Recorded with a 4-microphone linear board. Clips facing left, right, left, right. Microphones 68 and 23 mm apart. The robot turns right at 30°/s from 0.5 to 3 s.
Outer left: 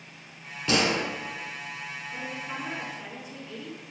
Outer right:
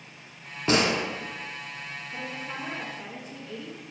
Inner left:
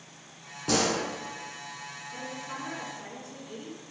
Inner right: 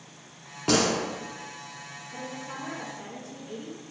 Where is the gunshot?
30° right (ahead or behind), 1.0 m.